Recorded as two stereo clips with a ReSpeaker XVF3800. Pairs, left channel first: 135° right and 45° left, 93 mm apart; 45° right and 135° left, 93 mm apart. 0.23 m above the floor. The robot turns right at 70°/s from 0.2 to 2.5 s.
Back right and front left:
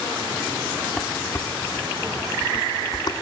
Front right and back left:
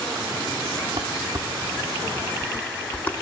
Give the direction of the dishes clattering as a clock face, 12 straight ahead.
7 o'clock.